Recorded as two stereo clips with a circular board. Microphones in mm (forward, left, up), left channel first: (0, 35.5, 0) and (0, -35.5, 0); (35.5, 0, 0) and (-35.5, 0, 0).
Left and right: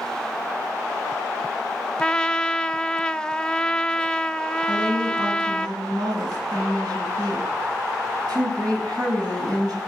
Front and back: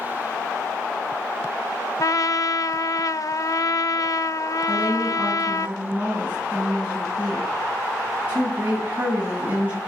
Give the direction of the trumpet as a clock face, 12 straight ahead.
12 o'clock.